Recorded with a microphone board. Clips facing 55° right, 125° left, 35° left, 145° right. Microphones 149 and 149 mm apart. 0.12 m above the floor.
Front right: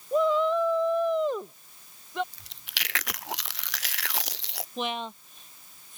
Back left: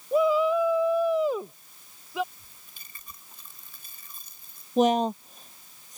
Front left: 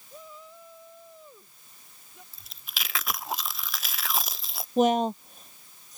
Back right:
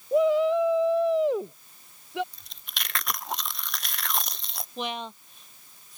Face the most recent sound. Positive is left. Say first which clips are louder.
# back left 11 dB, front left 12 dB
turn(degrees=75)